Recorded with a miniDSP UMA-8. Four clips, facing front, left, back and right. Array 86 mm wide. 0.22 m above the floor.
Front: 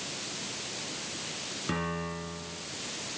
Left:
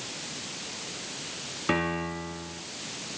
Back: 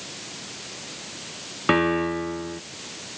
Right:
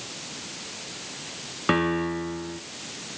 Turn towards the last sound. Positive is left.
turn(degrees=-150)